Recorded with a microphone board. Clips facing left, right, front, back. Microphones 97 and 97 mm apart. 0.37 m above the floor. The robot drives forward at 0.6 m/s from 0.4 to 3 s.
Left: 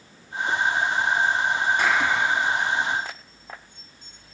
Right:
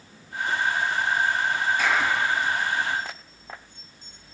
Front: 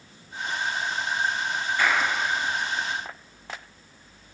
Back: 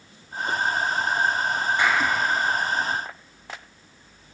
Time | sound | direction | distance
1.8 | a clap | 110° left | 4.5 m